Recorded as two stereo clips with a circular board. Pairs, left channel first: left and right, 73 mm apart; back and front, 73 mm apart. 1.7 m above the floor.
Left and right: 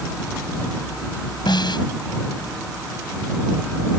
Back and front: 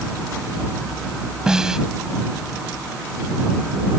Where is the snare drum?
80° left.